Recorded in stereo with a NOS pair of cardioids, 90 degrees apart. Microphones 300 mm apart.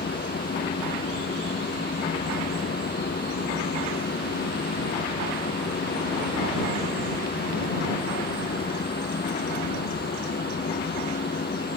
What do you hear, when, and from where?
0.0 s a fan: 30° left